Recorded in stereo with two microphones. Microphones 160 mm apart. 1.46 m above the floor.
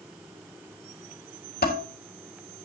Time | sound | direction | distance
1.6 | dishes clattering | 75° left (ahead or behind) | 3 m